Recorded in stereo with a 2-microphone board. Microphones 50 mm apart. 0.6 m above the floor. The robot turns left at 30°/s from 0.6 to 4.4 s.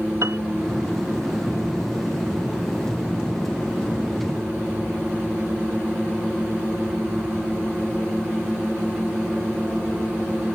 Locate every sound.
0.2 s a piano: 65° right (ahead or behind)